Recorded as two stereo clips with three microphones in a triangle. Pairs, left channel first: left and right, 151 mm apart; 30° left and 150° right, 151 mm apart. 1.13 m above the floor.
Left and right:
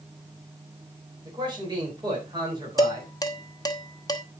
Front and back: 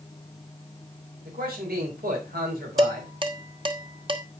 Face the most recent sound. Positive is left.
turn(degrees=155)